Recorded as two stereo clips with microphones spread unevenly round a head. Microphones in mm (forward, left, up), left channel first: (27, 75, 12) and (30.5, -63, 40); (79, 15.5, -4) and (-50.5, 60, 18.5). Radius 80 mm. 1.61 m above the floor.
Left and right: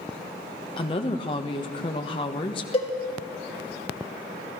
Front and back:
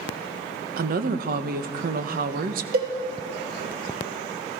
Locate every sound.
0.8 s a woman speaking: 155° left, 1.5 m
2.7 s a cowbell: 145° left, 3.5 m